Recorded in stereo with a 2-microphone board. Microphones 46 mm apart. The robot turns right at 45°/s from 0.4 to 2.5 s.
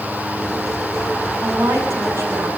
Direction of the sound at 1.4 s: 110° right.